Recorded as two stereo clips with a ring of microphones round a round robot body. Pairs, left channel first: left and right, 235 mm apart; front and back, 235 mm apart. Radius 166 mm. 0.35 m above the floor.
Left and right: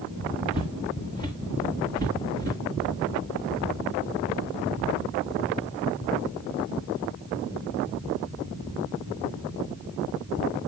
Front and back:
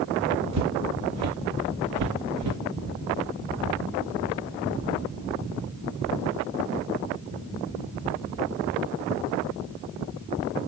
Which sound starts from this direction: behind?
Footsteps, at 0.5 s.